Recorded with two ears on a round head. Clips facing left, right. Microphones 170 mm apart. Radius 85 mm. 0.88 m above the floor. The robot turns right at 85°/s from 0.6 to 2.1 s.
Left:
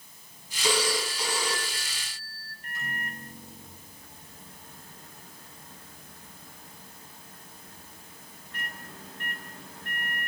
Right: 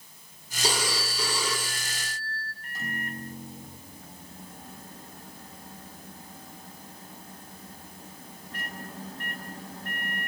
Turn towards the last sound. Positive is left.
turn(degrees=-35)  # may be behind; listen again after turning